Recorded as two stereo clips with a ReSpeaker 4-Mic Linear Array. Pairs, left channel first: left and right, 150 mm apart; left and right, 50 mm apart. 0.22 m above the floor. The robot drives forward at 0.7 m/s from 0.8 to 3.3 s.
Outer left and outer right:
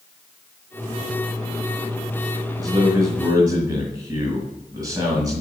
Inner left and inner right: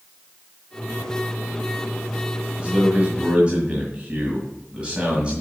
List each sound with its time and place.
2.6 s a man speaking: 25° right (ahead or behind), 1.7 m